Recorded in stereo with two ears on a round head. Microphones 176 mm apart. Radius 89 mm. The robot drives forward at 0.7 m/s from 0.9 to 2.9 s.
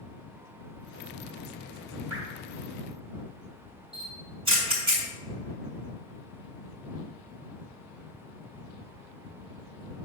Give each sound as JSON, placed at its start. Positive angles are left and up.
{"t": 2.1, "sound": "dripping", "side_deg": -80, "distance_m": 3.5}
{"t": 3.9, "sound": "a camera shutter", "side_deg": -30, "distance_m": 4.0}